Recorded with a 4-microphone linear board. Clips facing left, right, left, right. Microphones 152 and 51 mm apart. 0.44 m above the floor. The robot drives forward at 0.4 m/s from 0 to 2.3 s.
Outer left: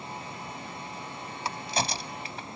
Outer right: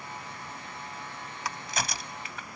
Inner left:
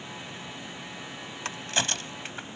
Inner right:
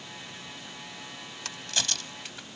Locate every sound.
1.4 s a crack: 30° left (ahead or behind)